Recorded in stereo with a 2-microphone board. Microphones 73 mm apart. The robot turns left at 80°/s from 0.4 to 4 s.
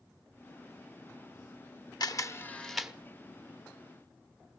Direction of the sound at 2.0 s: 60° left (ahead or behind).